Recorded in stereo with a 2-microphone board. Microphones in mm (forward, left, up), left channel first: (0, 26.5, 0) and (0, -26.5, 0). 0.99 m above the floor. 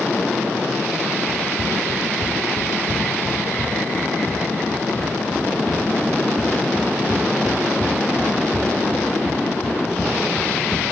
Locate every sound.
1.3 s running footsteps: 65° right (ahead or behind), 6 m; by 10.8 s 55° right (ahead or behind), 4.5 m